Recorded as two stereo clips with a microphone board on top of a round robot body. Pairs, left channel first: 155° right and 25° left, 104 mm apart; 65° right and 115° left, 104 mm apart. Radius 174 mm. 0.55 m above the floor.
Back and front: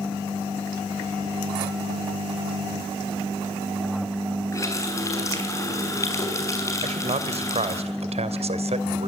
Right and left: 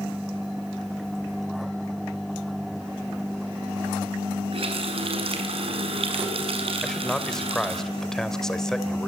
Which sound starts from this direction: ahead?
A man speaking, at 6.8 s.